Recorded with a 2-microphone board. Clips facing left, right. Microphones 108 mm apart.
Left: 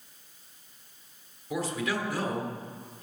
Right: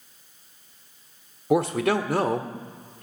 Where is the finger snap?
No finger snap in this recording.